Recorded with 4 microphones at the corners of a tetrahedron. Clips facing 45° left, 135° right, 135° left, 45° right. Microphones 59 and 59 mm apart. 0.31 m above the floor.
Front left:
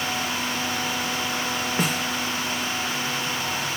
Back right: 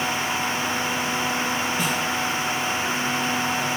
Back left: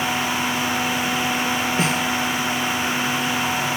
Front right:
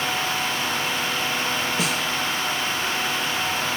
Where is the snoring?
I don't hear snoring.